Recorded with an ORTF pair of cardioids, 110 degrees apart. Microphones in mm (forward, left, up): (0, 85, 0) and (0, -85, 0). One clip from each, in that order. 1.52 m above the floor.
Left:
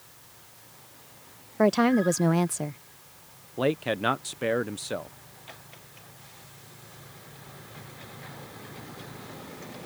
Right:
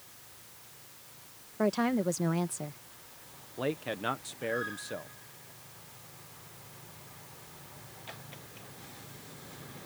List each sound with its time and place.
1.6 s a woman speaking: 35° left
3.6 s a man speaking: 35° left